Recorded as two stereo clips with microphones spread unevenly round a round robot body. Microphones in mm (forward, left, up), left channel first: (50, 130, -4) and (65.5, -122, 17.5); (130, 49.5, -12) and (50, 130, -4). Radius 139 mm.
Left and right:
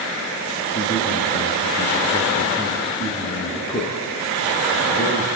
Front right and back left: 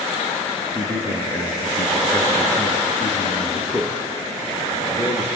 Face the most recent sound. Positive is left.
turn(degrees=25)